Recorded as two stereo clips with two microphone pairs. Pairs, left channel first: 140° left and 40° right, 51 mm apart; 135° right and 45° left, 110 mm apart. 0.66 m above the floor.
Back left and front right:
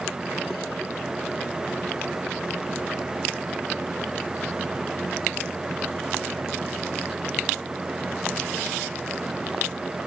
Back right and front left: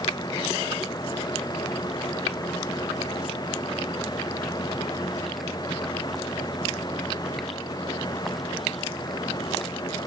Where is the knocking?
I don't hear knocking.